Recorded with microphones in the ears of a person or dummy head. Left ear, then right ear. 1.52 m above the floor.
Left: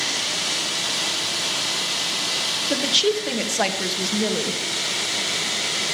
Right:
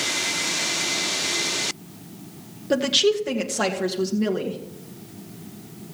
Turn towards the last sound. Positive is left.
turn(degrees=25)  # may be behind; listen again after turning